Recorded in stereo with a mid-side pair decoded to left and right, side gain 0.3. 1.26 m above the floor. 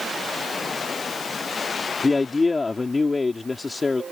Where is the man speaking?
35° left.